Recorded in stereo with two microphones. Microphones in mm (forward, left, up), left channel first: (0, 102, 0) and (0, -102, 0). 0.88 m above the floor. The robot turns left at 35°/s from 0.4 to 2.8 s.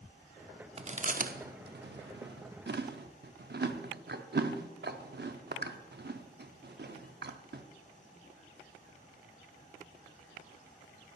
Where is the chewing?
30° right (ahead or behind), 0.6 m; by 7.6 s 55° right (ahead or behind), 0.6 m.